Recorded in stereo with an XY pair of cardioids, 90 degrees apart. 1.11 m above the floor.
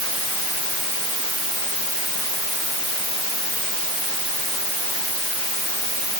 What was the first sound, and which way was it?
Only background noise.